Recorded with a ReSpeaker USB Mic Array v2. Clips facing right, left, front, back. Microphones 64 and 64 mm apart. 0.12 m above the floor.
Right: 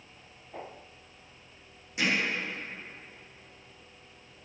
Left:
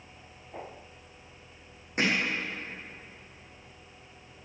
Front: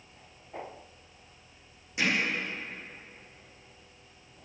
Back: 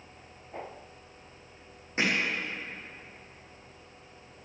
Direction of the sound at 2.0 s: 130° left.